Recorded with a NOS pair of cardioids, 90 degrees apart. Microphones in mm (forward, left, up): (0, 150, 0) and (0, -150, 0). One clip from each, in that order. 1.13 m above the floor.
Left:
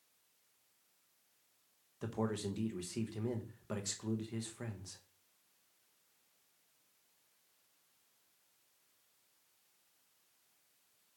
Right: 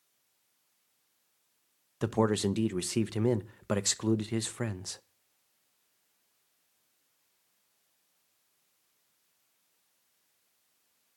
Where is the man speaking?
60° right, 0.7 m.